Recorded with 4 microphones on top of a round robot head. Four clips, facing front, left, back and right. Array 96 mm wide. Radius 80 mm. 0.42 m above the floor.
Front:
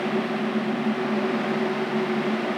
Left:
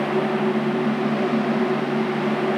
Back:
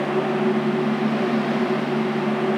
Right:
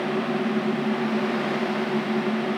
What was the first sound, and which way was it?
Only background noise.